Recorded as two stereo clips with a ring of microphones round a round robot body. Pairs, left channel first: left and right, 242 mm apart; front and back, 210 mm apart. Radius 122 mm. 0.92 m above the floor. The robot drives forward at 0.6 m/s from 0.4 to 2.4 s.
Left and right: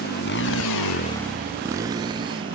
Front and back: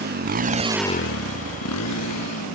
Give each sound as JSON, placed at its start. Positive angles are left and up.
{"t": 0.0, "sound": "a motorcycle", "azimuth_deg": 145}